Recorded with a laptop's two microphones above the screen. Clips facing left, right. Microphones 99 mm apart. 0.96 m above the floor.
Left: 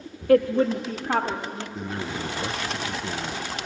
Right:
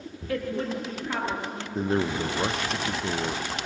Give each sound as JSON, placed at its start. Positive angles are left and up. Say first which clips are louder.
{"t": 0.3, "sound": "a woman speaking", "louder": "left 11 dB", "side_deg": 60, "distance_m": 1.1}
{"t": 1.8, "sound": "a man speaking", "louder": "right 8 dB", "side_deg": -35, "distance_m": 0.6}